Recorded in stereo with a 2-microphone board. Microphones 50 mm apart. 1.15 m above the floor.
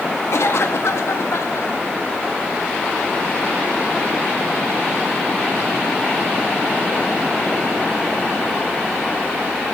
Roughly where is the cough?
Left.